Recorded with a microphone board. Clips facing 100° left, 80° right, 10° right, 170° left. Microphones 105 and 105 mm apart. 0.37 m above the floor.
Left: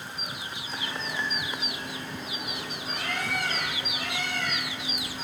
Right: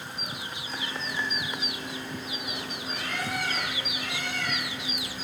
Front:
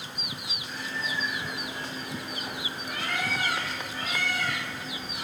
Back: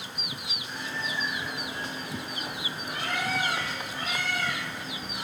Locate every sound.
0.7 s a bird: 110° left, 2.5 m